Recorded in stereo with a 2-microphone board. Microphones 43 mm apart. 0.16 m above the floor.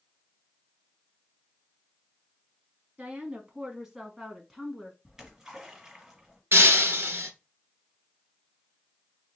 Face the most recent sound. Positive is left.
turn(degrees=-60)  # may be behind; listen again after turning